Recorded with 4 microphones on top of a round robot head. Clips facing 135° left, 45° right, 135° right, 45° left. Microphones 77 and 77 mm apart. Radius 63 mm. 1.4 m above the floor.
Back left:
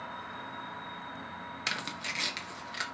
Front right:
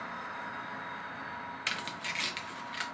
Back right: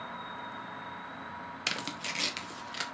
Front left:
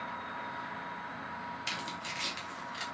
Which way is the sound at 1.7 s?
150° right.